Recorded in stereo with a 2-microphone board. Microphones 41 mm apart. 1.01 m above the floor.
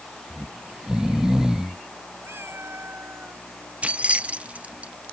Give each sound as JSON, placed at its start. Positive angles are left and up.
{"t": 0.3, "sound": "snoring", "side_deg": -15}
{"t": 2.2, "sound": "a cat meowing", "side_deg": -90}
{"t": 3.8, "sound": "keys jangling", "side_deg": -35}